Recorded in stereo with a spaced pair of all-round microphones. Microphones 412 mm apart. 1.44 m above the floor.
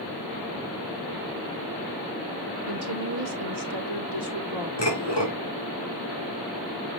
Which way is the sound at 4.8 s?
75° left (ahead or behind).